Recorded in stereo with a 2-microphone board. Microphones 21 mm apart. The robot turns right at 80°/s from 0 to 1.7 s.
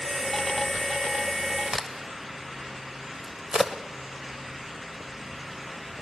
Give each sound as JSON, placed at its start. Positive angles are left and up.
{"t": 1.7, "sound": "a crack", "side_deg": -20, "distance_m": 1.5}